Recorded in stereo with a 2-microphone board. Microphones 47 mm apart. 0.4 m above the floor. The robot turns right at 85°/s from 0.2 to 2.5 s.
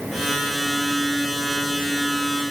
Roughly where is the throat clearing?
No throat clearing in this recording.